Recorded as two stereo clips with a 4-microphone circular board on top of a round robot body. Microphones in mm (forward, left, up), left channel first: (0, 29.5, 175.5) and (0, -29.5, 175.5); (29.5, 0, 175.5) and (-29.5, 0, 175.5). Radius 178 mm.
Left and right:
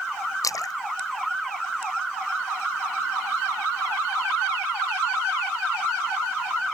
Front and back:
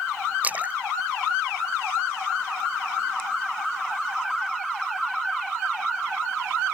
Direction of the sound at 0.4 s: 115° left.